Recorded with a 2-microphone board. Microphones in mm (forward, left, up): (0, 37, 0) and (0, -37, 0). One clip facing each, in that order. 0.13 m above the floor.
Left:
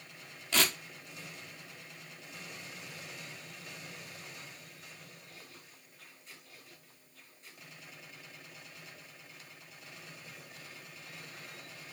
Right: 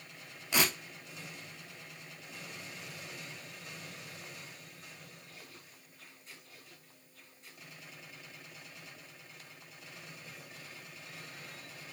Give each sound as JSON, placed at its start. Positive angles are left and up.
{"t": 0.5, "sound": "tearing paper", "side_deg": -15, "distance_m": 1.0}